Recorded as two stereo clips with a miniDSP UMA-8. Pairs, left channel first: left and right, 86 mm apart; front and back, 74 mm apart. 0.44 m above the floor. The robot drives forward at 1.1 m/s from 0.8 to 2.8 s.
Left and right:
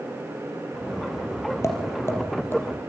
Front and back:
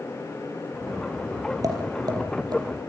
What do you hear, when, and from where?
1.6 s tapping: 145° left, 4 m; by 2.6 s 155° left, 5 m